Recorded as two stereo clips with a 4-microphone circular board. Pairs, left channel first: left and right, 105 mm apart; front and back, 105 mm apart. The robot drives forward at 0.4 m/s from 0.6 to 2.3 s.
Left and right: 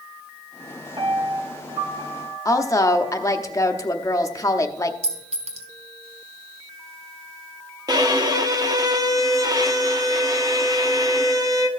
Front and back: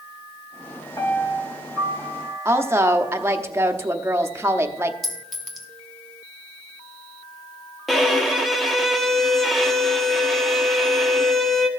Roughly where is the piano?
Ahead right.